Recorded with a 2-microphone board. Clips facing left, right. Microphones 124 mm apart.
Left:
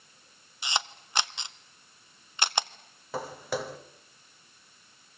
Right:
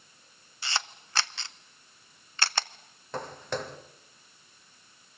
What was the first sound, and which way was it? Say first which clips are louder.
A camera shutter: left 2 dB; 20° left (ahead or behind).